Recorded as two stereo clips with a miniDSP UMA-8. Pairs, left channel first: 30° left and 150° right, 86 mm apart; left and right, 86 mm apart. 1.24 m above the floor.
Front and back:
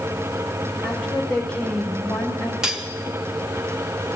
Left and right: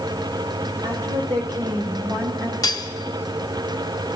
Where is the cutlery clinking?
130° left, 0.9 m.